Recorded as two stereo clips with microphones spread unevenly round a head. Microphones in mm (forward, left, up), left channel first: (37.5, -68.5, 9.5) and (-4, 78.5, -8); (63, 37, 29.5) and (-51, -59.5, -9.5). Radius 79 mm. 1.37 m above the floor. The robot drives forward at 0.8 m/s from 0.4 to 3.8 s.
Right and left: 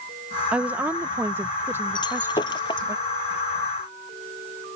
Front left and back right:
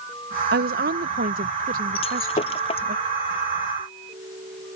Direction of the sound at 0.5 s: 170° right.